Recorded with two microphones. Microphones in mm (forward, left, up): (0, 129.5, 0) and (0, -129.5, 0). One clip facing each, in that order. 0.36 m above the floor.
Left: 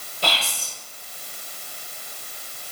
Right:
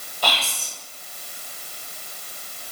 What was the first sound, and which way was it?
Whispering, 25° left (ahead or behind).